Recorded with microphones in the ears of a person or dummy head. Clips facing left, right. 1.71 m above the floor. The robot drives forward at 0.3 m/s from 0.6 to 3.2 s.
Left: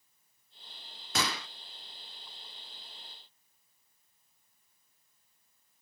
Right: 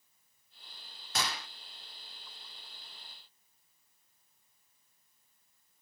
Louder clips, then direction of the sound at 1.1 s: Left 3 dB; 65° left (ahead or behind).